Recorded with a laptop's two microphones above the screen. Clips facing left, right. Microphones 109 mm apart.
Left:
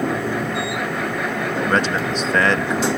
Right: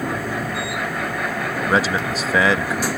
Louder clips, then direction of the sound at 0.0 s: Left 3 dB; 25° left (ahead or behind).